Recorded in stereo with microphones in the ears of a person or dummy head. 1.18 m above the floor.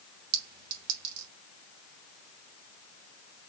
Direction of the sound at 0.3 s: 55° right (ahead or behind).